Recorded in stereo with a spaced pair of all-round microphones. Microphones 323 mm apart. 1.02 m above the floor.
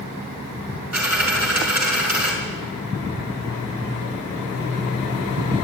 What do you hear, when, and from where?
0.9 s a dropped coin: 55° right (ahead or behind), 5.5 m